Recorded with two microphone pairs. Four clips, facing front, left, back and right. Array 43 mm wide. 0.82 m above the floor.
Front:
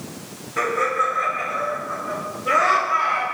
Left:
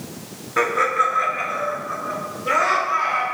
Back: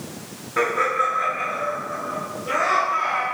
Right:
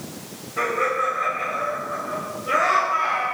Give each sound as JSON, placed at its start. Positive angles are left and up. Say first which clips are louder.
{"t": 0.6, "sound": "laughter", "louder": "left 4 dB, even", "azimuth_deg": 115, "distance_m": 1.4}